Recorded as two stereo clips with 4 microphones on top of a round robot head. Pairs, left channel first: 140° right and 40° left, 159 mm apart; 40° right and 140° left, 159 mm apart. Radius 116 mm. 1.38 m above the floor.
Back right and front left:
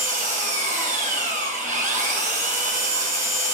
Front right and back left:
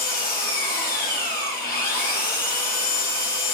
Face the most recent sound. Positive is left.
turn(degrees=-10)